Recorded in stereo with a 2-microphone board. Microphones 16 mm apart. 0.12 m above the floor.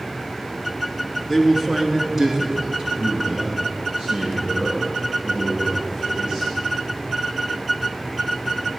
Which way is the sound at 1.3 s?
5° right (ahead or behind).